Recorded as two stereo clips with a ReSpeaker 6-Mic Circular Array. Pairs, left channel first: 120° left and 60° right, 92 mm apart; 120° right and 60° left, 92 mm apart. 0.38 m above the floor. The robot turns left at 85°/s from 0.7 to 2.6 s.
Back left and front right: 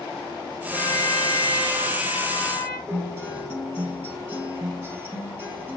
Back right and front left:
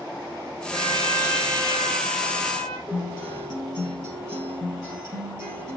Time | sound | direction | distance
0.7 | a trumpet | 165° right | 2.5 m
2.9 | a guitar | 5° left | 4 m